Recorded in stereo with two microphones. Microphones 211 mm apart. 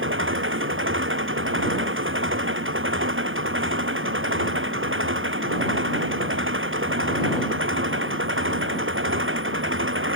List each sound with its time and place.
0.0 s an engine running: 85° right